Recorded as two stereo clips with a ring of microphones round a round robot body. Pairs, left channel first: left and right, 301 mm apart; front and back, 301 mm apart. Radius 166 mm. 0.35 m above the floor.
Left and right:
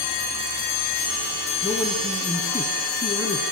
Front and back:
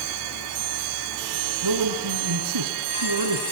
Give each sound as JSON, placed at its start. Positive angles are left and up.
{"t": 1.6, "sound": "a man speaking", "azimuth_deg": 175, "distance_m": 4.5}